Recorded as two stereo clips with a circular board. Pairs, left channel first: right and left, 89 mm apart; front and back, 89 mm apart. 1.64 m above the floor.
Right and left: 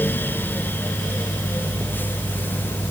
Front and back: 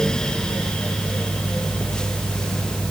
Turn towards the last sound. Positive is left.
No sound to turn to.